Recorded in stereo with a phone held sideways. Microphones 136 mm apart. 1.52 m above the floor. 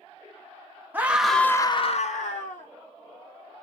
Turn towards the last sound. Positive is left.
turn(degrees=70)  # may be behind; listen again after turning